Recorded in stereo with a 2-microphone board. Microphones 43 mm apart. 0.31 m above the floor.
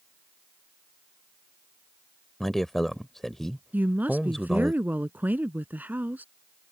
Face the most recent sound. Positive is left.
turn(degrees=-45)  # may be behind; listen again after turning